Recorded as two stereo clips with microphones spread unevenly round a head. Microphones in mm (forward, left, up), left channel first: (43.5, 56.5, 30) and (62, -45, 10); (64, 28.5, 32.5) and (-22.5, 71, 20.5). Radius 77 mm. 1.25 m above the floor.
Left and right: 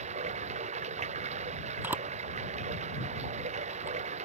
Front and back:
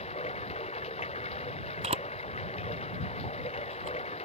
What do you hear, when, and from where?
0.0 s running water: 80° right
1.8 s a camera shutter: 160° right